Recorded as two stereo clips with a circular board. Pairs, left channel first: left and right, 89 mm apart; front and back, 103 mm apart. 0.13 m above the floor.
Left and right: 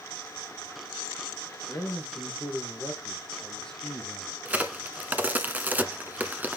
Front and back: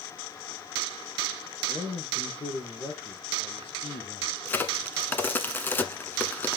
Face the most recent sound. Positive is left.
turn(degrees=-45)